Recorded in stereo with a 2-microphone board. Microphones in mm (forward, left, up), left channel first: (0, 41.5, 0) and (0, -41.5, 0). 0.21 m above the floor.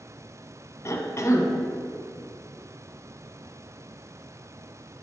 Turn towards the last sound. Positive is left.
turn(degrees=40)  # may be behind; listen again after turning